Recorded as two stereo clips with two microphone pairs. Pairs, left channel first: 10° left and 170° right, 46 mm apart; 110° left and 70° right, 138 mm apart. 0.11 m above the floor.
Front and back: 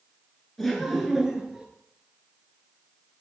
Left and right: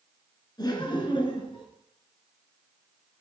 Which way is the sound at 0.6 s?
85° left.